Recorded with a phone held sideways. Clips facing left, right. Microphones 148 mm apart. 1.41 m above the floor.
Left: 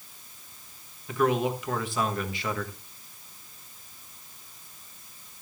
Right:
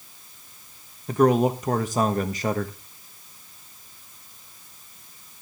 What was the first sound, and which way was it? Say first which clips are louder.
A man speaking: right 6 dB; 40° right (ahead or behind).